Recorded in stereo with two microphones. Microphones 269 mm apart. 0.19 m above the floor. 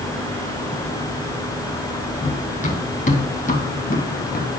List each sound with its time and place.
2.2 s running footsteps: 25° left (ahead or behind), 3.5 m; by 4.5 s 35° left (ahead or behind), 1.9 m